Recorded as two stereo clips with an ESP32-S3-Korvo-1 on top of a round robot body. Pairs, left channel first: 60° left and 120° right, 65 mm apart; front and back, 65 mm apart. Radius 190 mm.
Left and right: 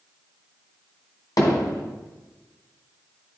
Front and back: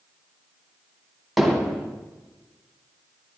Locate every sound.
1.4 s hammering: 90° left, 2.5 m